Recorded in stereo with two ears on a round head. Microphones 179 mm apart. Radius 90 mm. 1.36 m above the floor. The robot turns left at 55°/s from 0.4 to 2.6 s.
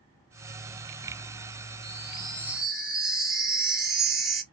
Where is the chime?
135° right, 1.4 m; by 4.4 s straight behind, 1.4 m.